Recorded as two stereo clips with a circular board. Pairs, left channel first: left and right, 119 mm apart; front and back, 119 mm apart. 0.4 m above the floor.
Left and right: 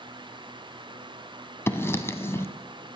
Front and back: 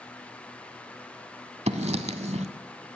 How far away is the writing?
About 0.8 m.